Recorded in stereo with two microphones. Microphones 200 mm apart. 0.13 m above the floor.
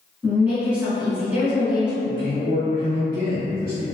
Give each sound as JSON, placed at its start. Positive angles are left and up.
{"t": 0.2, "sound": "a woman speaking", "side_deg": -5, "distance_m": 1.1}
{"t": 2.0, "sound": "a man speaking", "side_deg": 50, "distance_m": 1.9}